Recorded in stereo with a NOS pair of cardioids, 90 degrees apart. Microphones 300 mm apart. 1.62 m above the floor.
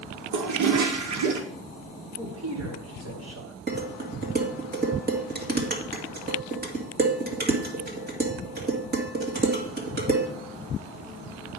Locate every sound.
0.3 s a toilet flushing: 70° right, 1.2 m
2.2 s a man speaking: 55° right, 3.5 m
3.7 s dishes clattering: 35° right, 1.9 m